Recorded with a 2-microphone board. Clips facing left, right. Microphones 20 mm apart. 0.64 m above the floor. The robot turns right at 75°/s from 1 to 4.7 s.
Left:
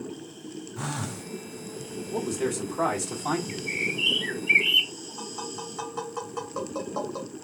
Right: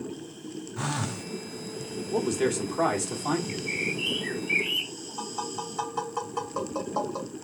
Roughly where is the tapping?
Centre.